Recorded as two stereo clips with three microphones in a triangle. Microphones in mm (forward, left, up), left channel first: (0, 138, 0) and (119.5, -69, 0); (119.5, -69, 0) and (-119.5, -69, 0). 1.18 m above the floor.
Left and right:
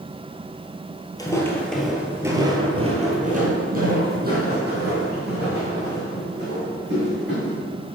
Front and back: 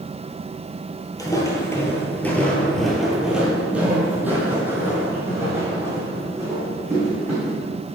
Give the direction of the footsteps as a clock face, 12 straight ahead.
10 o'clock.